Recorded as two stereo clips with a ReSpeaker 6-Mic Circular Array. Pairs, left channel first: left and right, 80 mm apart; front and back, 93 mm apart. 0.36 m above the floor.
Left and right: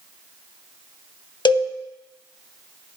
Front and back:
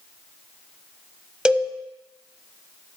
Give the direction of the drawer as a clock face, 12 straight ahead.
I don't hear a drawer.